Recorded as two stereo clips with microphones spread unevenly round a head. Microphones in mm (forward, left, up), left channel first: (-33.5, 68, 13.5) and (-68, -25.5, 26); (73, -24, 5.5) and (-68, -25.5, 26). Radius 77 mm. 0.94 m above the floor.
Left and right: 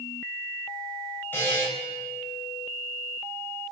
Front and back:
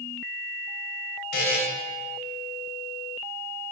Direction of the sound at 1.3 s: 10° right.